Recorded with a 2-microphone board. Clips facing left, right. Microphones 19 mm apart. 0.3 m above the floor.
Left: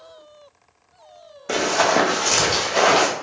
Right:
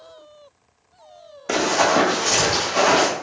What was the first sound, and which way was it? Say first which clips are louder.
Running footsteps: right 1 dB; 10° right (ahead or behind).